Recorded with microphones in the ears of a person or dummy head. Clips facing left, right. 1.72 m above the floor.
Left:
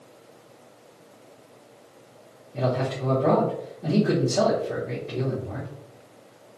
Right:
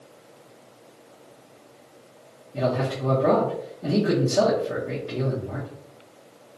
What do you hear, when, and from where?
2.5 s a man speaking: 10° right (ahead or behind), 0.6 m